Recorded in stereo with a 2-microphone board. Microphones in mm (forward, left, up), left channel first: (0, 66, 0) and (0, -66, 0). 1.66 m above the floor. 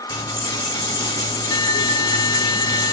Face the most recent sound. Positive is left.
turn(degrees=30)  # may be behind; listen again after turning